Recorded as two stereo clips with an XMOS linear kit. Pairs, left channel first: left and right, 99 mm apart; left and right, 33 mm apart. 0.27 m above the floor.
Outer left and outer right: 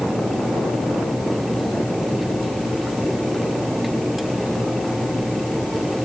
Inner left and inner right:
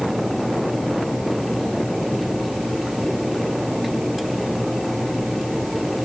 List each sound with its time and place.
Only background noise.